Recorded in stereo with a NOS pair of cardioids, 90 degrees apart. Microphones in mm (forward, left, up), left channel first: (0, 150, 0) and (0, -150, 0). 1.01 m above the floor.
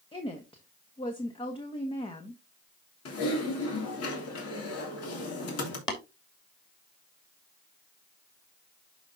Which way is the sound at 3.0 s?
60° left.